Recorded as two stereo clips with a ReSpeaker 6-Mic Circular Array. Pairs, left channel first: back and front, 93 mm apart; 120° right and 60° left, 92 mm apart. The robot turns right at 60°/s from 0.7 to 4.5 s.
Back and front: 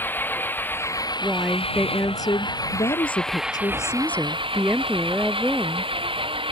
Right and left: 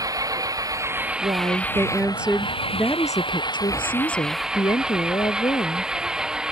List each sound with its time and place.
0.0 s an engine running: 110° left; by 6.5 s 20° right
1.2 s a woman speaking: 80° left; by 5.9 s 85° right